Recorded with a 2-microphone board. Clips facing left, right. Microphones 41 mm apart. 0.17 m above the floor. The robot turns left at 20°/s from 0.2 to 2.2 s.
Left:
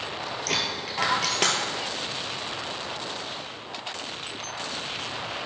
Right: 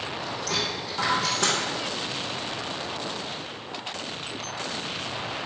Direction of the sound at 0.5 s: 60° left (ahead or behind).